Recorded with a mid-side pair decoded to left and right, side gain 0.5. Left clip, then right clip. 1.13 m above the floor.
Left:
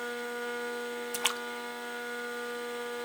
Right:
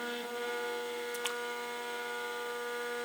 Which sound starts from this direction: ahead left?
A splash, at 1.1 s.